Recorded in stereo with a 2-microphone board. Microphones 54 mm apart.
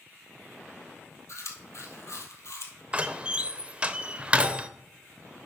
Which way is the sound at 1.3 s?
60° left (ahead or behind).